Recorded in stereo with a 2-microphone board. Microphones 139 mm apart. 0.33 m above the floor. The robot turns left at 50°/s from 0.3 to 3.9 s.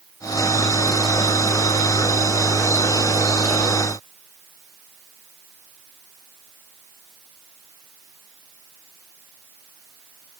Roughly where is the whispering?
No whispering in this recording.